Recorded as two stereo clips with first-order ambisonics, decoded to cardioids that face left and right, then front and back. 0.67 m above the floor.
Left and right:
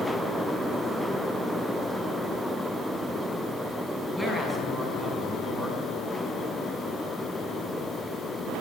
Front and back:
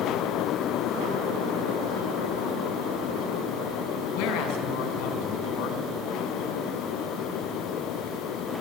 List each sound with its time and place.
4.1 s a woman speaking: 5° right, 5.5 m